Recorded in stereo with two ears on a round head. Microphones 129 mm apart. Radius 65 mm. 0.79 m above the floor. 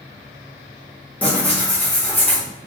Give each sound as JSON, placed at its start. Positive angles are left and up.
{"t": 1.2, "sound": "tearing paper", "side_deg": 10, "distance_m": 1.3}